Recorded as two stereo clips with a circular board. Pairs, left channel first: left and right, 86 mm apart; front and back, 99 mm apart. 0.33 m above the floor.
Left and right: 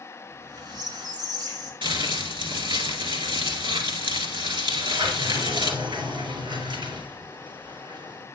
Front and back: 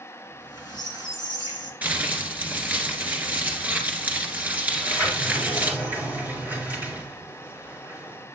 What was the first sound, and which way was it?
A squeak, 120° right.